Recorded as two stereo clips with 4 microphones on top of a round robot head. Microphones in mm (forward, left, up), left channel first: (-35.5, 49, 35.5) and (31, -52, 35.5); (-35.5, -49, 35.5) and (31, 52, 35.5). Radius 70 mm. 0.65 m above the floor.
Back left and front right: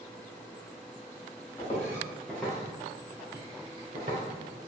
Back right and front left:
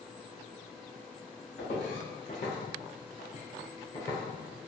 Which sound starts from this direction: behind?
Footsteps, at 1.6 s.